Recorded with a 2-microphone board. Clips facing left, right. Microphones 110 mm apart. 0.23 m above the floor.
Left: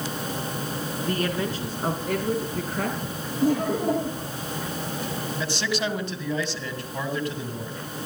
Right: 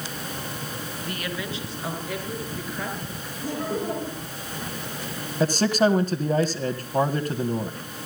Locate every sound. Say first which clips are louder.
1.0 s a woman speaking: left 7 dB; 35° left (ahead or behind), 3 m; by 3.0 s 60° left (ahead or behind), 5 m
3.4 s laughter: left 6 dB; 55° left (ahead or behind), 9.5 m
5.4 s a man speaking: right 9 dB; 40° right (ahead or behind), 1.8 m